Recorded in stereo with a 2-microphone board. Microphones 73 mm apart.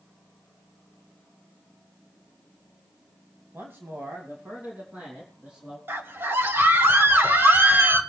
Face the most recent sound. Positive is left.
turn(degrees=-30)  # may be behind; listen again after turning